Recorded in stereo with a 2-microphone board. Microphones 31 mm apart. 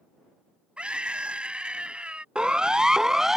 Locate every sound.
0.8 s a scream: 35° right (ahead or behind)
2.4 s a siren: 30° right (ahead or behind); by 3.4 s 15° right (ahead or behind)